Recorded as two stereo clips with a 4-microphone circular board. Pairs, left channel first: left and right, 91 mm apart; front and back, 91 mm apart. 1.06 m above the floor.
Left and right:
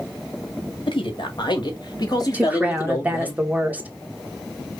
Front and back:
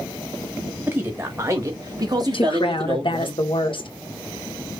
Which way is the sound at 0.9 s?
110° left.